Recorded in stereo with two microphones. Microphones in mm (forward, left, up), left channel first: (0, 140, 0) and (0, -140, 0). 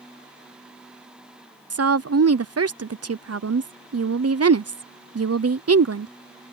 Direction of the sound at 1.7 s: 60° right (ahead or behind).